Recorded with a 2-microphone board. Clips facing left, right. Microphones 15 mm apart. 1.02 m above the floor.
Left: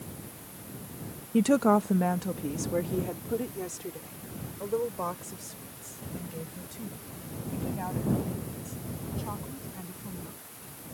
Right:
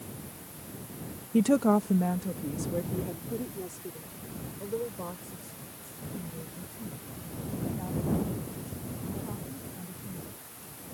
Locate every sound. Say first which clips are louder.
1.3 s a woman speaking: left 1 dB; 10° left (ahead or behind); by 10.4 s 65° left (ahead or behind)